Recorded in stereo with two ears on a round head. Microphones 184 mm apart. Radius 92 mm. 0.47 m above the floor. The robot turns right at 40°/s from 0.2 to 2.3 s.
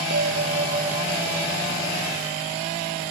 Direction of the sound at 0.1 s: 50° right.